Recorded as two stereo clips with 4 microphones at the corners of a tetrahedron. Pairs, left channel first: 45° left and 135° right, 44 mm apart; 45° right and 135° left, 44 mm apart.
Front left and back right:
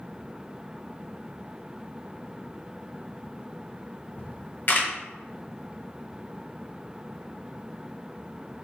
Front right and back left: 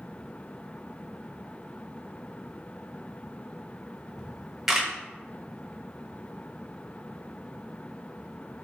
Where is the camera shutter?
55° left, 0.8 m.